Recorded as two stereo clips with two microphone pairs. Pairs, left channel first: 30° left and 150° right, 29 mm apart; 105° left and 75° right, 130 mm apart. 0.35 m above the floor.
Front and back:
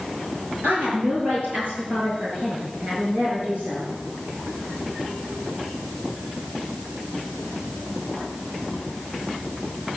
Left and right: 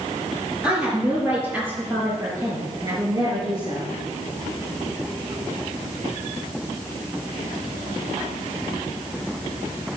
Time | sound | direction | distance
0.6 | a woman speaking | 155° right | 7.5 m